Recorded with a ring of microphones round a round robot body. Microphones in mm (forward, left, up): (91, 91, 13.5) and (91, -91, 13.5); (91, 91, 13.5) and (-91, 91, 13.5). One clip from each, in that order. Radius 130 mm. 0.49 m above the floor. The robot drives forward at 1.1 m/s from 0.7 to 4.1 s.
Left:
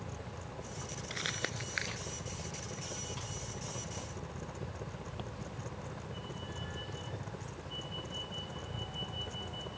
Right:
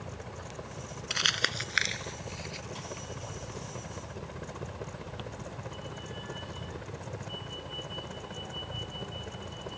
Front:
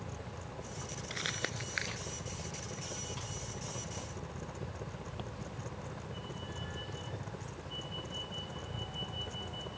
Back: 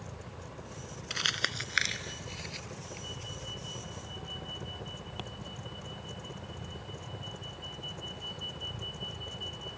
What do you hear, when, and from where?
0.0 s a helicopter: 90° right; by 9.8 s 75° right
1.1 s crumpling: 125° right; by 5.2 s 160° right